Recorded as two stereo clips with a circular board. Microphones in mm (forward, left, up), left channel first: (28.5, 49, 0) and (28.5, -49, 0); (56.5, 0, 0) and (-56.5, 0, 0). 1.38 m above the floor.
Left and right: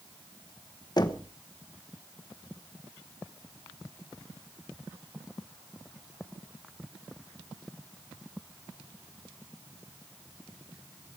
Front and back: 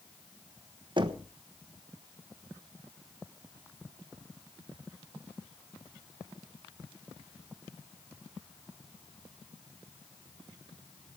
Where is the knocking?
135° left, 1.2 m.